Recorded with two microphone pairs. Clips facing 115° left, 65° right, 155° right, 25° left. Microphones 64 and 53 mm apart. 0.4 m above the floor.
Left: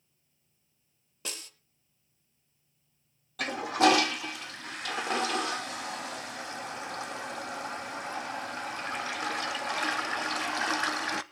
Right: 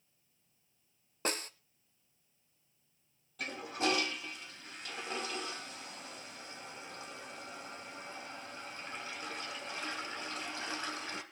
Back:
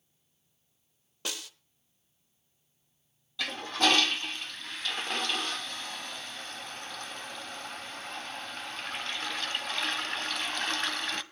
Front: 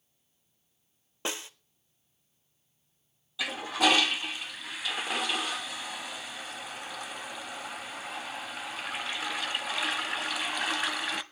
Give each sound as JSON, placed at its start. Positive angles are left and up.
{"t": 1.2, "sound": "a snare drum", "azimuth_deg": -35, "distance_m": 0.7}
{"t": 3.4, "sound": "a toilet flushing", "azimuth_deg": 105, "distance_m": 0.5}